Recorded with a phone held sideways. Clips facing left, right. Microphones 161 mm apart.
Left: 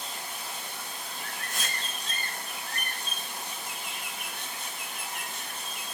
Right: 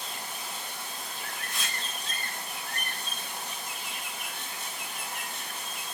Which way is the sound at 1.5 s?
45° left (ahead or behind).